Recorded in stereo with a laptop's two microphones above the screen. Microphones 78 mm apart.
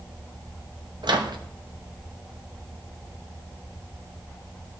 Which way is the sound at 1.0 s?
75° right (ahead or behind).